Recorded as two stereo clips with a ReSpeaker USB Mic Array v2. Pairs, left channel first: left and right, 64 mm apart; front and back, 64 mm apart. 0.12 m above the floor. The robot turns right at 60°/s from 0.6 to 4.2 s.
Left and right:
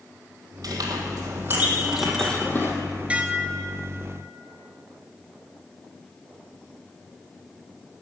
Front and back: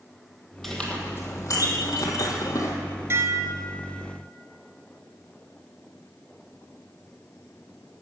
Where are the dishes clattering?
155° right, 1.0 m; by 3.9 s 105° right, 1.0 m.